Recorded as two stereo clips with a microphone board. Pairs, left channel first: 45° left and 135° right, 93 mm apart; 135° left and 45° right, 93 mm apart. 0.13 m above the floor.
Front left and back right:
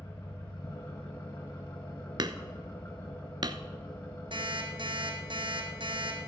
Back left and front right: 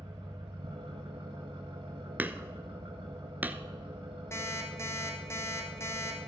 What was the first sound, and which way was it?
An engine running, 10° right.